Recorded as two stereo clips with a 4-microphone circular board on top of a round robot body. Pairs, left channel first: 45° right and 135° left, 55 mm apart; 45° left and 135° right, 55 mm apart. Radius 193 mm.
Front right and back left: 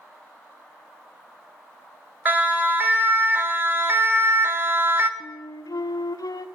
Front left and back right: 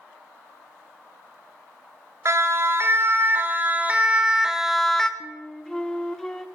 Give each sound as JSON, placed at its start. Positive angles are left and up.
{"t": 2.2, "sound": "a siren", "azimuth_deg": -170, "distance_m": 3.5}
{"t": 5.2, "sound": "a flute", "azimuth_deg": -35, "distance_m": 1.0}